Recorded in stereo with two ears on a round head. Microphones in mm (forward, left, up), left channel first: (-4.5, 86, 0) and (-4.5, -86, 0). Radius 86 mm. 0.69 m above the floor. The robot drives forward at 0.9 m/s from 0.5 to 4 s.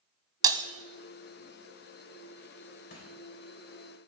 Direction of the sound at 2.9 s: 50° left (ahead or behind).